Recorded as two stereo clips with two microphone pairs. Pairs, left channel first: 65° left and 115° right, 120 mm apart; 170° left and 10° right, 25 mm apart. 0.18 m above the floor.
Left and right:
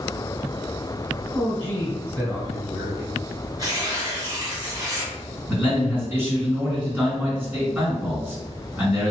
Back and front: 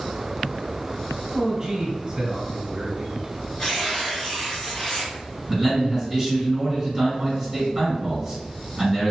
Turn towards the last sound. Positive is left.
turn(degrees=-55)